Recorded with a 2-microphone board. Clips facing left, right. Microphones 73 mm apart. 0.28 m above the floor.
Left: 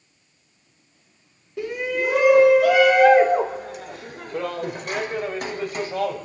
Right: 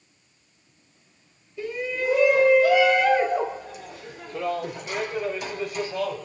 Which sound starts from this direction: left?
A shout, at 1.6 s.